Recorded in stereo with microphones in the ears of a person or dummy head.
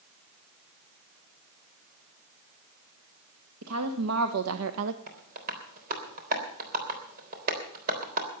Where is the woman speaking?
85° right, 1.6 m; by 5.0 s 75° right (ahead or behind), 0.7 m.